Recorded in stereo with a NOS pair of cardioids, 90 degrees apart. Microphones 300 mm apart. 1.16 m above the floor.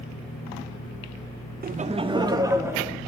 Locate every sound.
1.6 s laughter: 30° right, 0.6 m; by 3.0 s 10° right, 1.8 m